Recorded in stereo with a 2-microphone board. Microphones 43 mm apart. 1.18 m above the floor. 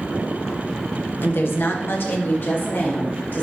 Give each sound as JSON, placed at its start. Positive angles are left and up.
{"t": 1.2, "sound": "a woman speaking", "side_deg": 60, "distance_m": 1.2}